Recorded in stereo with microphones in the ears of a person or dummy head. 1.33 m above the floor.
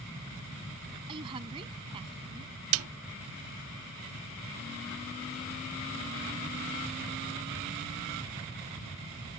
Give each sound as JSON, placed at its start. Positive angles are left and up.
{"t": 1.1, "sound": "a woman speaking", "side_deg": -25}
{"t": 2.7, "sound": "a snare drum", "side_deg": -75}